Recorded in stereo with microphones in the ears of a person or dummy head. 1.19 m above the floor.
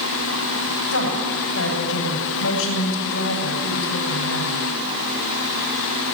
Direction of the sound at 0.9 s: 65° left (ahead or behind).